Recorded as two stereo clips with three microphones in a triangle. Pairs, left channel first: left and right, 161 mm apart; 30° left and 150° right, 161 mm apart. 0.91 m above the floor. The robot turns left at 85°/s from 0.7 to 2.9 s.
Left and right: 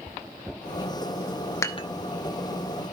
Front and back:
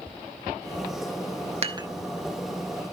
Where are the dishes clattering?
165° left, 1.0 m; by 1.9 s 140° left, 1.0 m.